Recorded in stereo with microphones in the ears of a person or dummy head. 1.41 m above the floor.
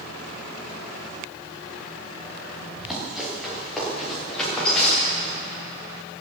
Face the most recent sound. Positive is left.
turn(degrees=5)  # may be behind; listen again after turning